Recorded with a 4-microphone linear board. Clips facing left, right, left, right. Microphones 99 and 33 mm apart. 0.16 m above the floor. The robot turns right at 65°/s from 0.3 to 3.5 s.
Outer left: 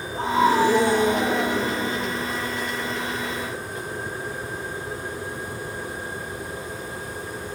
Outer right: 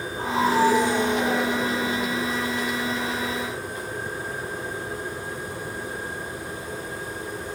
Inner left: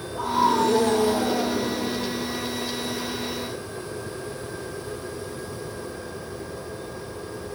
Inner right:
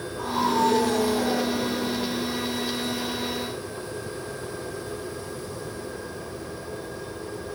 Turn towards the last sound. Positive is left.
turn(degrees=-120)